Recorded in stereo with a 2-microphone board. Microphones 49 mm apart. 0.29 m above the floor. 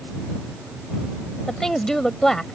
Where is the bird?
I don't hear a bird.